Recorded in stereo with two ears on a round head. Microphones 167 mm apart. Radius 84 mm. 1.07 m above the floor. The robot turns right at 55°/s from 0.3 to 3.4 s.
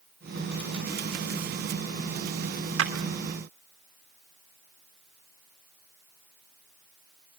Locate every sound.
2.8 s a clap: 70° right (ahead or behind), 3 m; by 2.9 s 75° right (ahead or behind), 3 m